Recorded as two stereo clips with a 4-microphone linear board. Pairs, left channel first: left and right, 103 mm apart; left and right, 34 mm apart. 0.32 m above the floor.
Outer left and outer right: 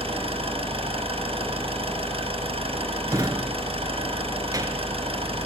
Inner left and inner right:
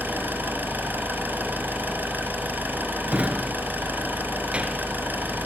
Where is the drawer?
35° right (ahead or behind), 1.7 m.